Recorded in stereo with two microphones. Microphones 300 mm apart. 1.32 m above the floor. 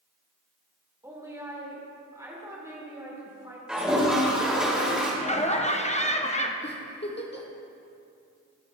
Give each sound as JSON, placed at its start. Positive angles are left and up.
{"t": 1.0, "sound": "a woman speaking", "side_deg": -10, "distance_m": 2.0}
{"t": 3.7, "sound": "a toilet flushing", "side_deg": -5, "distance_m": 1.7}
{"t": 5.2, "sound": "laughter", "side_deg": 20, "distance_m": 0.7}
{"t": 6.6, "sound": "a giggle", "side_deg": 35, "distance_m": 1.0}